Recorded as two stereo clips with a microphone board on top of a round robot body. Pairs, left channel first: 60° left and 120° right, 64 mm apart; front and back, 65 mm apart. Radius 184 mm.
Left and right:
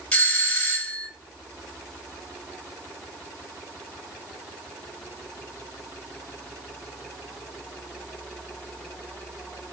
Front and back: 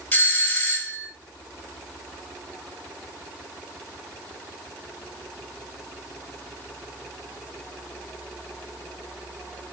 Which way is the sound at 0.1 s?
15° left.